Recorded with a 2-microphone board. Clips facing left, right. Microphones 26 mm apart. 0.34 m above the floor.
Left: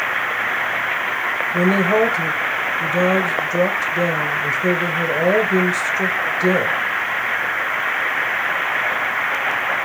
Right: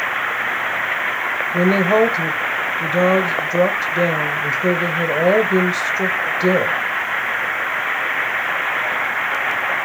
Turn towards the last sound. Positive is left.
turn(degrees=-30)  # may be behind; listen again after turning